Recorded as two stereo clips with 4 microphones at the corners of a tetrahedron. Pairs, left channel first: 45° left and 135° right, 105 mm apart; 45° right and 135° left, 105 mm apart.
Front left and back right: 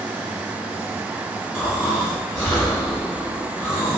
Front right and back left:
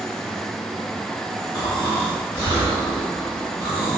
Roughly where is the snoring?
Ahead.